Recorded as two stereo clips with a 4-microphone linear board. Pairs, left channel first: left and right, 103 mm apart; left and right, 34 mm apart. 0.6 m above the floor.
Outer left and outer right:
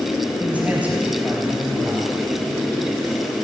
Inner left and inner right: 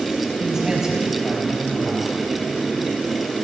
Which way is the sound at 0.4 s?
15° right (ahead or behind).